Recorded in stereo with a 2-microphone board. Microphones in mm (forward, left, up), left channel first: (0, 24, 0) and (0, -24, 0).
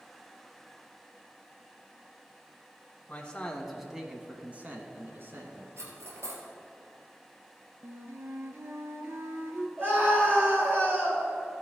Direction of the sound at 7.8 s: 60° right (ahead or behind).